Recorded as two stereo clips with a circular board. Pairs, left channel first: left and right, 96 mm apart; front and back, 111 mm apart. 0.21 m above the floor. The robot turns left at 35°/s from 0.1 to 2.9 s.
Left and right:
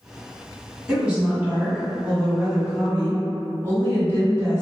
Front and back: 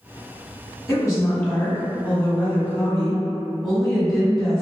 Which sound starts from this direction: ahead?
A woman speaking, at 0.9 s.